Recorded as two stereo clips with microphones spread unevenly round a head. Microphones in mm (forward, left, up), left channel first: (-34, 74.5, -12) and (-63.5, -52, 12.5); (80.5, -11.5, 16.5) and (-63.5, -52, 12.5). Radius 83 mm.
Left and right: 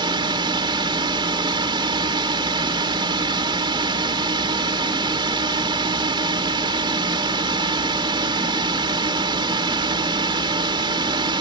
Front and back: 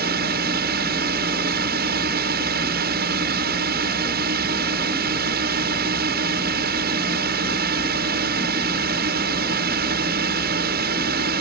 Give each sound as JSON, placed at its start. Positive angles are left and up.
{"t": 0.0, "sound": "a drone", "azimuth_deg": -155}